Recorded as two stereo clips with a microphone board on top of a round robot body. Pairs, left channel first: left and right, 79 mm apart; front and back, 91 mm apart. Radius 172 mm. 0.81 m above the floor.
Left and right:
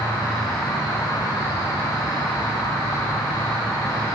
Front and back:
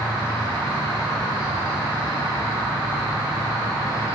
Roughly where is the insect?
Behind left.